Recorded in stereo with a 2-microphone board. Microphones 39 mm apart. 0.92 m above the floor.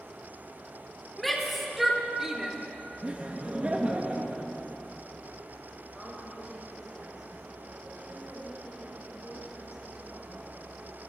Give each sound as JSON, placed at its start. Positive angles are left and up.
{"t": 1.2, "sound": "a shout", "side_deg": 5, "distance_m": 2.0}
{"t": 3.0, "sound": "laughter", "side_deg": -30, "distance_m": 0.9}
{"t": 5.9, "sound": "a woman speaking", "side_deg": -15, "distance_m": 4.5}